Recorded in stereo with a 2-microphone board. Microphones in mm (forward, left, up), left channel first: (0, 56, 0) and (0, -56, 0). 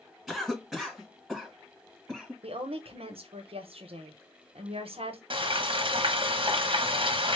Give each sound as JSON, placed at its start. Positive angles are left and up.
{"t": 0.3, "sound": "a cough", "side_deg": 0, "distance_m": 1.4}
{"t": 2.4, "sound": "a woman speaking", "side_deg": -60, "distance_m": 0.8}
{"t": 5.3, "sound": "frying", "side_deg": -50, "distance_m": 0.8}